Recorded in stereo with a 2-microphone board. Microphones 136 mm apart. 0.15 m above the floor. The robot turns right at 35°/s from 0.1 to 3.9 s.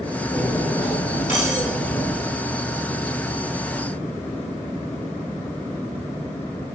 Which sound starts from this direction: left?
Cutlery clinking, at 0.3 s.